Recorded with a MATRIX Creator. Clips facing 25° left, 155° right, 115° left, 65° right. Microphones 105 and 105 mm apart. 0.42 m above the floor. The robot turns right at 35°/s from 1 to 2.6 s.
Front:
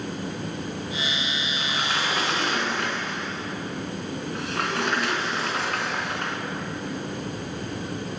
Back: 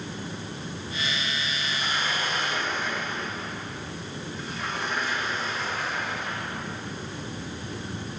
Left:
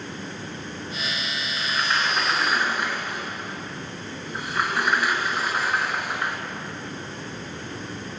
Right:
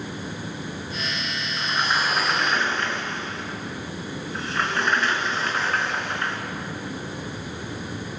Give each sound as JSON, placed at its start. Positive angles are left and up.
{"t": 1.6, "sound": "a sliding door", "azimuth_deg": -5, "distance_m": 3.5}